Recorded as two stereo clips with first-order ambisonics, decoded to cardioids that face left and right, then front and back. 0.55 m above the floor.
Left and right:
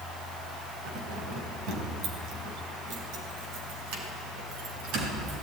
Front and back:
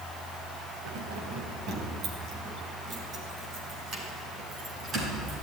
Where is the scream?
No scream in this recording.